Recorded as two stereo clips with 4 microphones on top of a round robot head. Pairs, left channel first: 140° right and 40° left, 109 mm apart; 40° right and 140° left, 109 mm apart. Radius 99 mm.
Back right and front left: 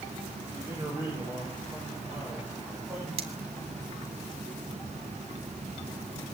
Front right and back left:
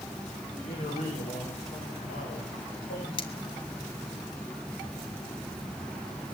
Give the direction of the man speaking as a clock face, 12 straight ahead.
1 o'clock.